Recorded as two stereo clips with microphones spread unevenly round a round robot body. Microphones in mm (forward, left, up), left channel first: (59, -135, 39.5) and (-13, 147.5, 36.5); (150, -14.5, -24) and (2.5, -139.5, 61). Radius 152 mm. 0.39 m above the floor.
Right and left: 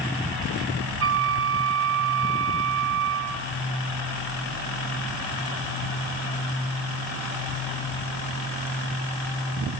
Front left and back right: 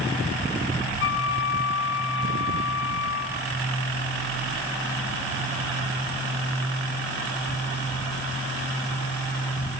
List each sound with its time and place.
1.0 s a flute: 60° left, 2.5 m